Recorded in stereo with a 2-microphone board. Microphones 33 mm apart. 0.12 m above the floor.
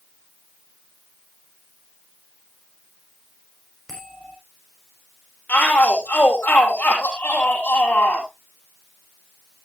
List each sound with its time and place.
3.9 s a bell: 10° left (ahead or behind), 6 m
5.5 s a shout: 60° left (ahead or behind), 3 m